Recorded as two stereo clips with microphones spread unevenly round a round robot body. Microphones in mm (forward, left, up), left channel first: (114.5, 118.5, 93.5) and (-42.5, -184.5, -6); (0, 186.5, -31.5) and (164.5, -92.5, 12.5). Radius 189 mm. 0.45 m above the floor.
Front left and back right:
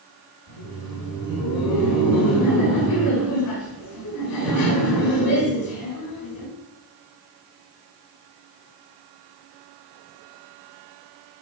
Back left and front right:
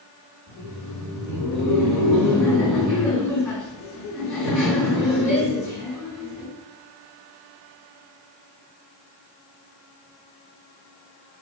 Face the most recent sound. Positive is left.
turn(degrees=30)